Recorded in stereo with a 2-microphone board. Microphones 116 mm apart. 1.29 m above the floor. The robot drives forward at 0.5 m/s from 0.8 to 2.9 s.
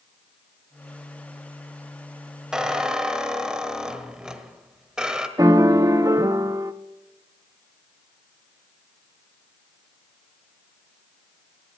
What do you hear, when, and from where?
2.5 s a squeak: 5° right (ahead or behind), 1.3 m
5.4 s a piano: 30° right (ahead or behind), 0.7 m